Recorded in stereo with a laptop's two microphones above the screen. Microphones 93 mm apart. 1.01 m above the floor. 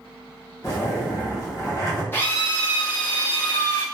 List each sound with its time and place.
0.6 s a zipper: 35° left (ahead or behind), 1.1 m
2.1 s a drill: 25° left (ahead or behind), 0.6 m